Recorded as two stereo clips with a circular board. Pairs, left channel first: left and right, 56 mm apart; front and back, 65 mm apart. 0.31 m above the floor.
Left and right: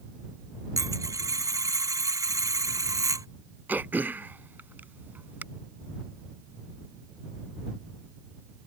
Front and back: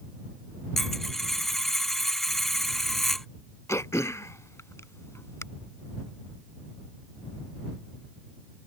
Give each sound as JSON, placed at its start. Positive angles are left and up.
{"t": 0.8, "sound": "a dropped coin", "azimuth_deg": -85}
{"t": 3.7, "sound": "throat clearing", "azimuth_deg": -40}